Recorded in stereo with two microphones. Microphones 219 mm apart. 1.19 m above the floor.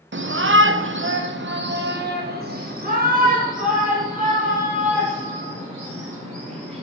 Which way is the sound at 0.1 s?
60° right (ahead or behind).